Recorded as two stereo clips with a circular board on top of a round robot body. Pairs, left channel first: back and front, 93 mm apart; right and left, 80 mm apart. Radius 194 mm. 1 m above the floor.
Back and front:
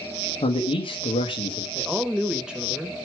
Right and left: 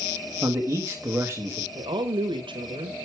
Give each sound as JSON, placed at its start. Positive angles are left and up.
{"t": 0.4, "sound": "a man speaking", "azimuth_deg": 160, "distance_m": 1.3}
{"t": 1.8, "sound": "a woman speaking", "azimuth_deg": 80, "distance_m": 1.4}